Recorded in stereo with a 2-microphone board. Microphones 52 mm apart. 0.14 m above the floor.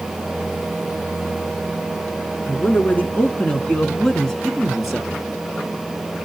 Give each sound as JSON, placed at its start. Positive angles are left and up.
{"t": 2.5, "sound": "a man speaking", "side_deg": 35, "distance_m": 1.9}